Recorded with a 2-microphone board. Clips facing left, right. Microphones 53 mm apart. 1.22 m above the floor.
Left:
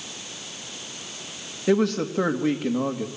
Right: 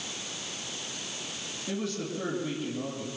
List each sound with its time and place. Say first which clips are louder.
1.7 s a man speaking: left 12 dB; 80° left, 2.5 m